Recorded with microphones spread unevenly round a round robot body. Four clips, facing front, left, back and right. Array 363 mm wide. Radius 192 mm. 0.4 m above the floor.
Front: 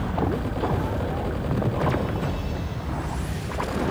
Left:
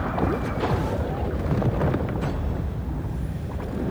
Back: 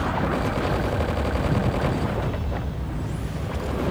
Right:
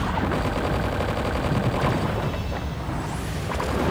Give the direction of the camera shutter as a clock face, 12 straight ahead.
No camera shutter in this recording.